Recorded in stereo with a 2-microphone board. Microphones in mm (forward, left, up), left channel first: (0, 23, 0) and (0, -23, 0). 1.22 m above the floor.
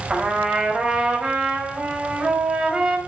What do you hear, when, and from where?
0.1 s a trumpet: 15° right (ahead or behind), 4 m